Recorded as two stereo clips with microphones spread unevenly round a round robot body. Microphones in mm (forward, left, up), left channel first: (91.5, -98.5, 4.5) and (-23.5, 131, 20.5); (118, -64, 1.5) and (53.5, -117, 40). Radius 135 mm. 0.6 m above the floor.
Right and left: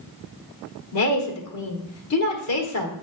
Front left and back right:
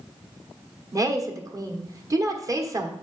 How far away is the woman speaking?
About 1.4 m.